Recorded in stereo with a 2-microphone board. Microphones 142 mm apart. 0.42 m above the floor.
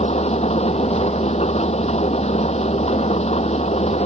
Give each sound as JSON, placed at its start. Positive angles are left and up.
{"t": 0.0, "sound": "an engine running", "side_deg": 50}